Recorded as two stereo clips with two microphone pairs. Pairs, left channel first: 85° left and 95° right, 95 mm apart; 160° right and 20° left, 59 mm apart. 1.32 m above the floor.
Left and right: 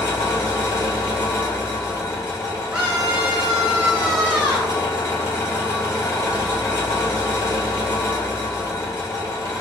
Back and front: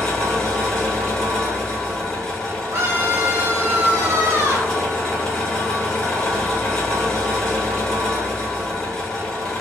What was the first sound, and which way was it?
An engine running, 130° left.